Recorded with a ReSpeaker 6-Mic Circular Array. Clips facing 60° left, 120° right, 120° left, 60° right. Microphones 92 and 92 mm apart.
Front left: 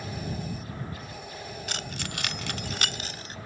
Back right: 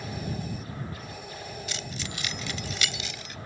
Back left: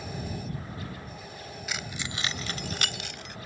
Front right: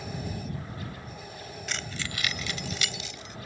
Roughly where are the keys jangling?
Ahead left.